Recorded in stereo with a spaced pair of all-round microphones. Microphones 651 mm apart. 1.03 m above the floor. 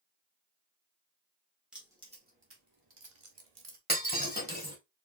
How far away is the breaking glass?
About 2.5 m.